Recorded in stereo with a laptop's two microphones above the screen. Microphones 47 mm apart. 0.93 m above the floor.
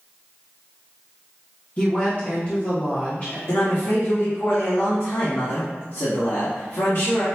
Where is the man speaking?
65° left (ahead or behind), 1.6 m.